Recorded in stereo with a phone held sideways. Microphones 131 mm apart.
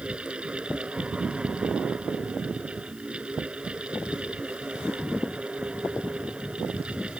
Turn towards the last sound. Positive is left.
turn(degrees=-10)  # may be behind; listen again after turning